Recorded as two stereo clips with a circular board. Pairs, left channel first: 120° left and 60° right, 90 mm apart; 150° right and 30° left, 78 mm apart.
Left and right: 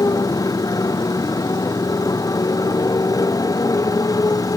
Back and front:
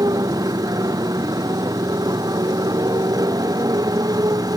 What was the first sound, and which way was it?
A motorcycle, 70° left.